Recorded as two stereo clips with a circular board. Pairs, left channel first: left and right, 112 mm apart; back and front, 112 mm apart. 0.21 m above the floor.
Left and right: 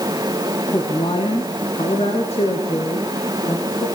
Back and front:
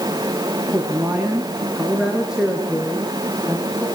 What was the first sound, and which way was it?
A woman speaking, 55° left.